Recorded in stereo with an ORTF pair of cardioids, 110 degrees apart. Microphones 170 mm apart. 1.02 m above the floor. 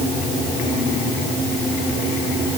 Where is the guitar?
I don't hear a guitar.